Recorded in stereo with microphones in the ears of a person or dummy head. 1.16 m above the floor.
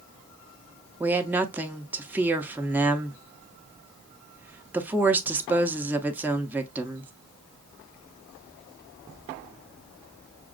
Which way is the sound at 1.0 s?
10° right (ahead or behind).